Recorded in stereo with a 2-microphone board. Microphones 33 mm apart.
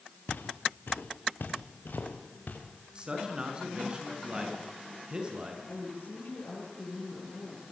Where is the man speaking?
25° right (ahead or behind), 5 m.